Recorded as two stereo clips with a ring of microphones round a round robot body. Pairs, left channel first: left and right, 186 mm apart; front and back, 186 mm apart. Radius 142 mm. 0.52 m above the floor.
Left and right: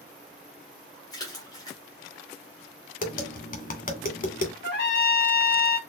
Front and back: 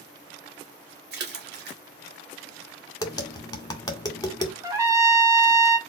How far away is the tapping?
About 1.9 m.